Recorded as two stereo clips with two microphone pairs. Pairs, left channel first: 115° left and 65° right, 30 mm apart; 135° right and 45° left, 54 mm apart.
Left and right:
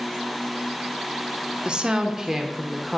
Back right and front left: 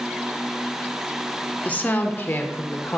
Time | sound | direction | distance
1.6 | a woman speaking | 100° right | 0.9 m